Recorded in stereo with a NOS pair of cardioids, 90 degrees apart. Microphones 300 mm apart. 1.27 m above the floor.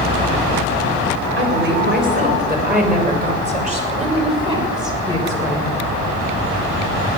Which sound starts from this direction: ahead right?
A woman speaking, at 1.4 s.